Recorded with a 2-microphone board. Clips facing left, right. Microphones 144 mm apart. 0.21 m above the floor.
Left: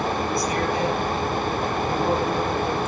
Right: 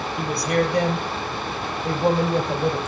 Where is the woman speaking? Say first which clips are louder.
Right 2 dB; 70° right (ahead or behind), 5 m.